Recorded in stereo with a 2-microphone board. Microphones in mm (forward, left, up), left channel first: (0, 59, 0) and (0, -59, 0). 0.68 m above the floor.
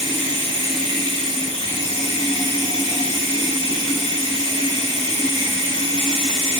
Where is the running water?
45° right (ahead or behind), 2 m.